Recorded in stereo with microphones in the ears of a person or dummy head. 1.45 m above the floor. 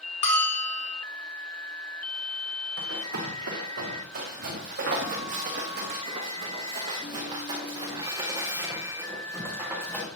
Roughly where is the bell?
Left.